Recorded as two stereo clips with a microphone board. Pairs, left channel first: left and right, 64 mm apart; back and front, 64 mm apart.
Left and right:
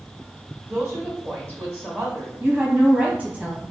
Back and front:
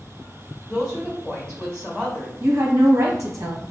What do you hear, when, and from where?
0.7 s a woman speaking: 105° right, 1.4 m
2.4 s a woman speaking: 30° right, 0.8 m